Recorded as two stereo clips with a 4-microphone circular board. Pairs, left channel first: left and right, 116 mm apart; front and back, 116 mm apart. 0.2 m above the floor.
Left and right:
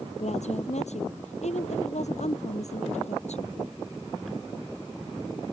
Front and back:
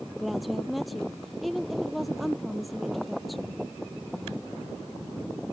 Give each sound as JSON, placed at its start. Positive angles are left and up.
{"t": 0.2, "sound": "a woman speaking", "azimuth_deg": 90}